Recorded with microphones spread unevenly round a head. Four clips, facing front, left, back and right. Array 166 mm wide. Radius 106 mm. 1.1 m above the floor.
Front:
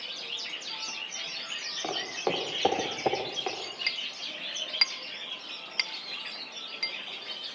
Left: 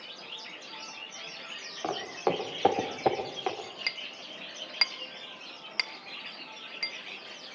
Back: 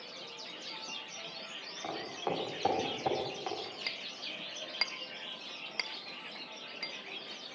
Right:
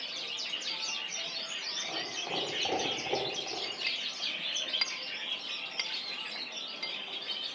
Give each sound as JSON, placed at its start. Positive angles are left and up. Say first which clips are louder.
{"t": 1.8, "sound": "footsteps", "louder": "left 11 dB, front 5 dB", "azimuth_deg": 60, "distance_m": 6.0}
{"t": 3.9, "sound": "a clink", "louder": "left 1 dB, front 4 dB", "azimuth_deg": 150, "distance_m": 0.5}